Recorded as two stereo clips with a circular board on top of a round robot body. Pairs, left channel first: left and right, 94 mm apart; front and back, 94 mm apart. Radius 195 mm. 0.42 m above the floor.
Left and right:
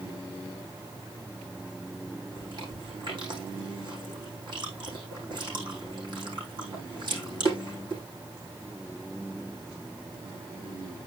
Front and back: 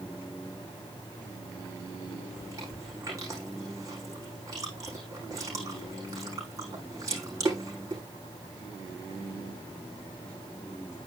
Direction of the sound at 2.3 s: 125° right.